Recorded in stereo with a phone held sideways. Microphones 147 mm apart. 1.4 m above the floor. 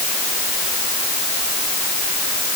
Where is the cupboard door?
No cupboard door in this recording.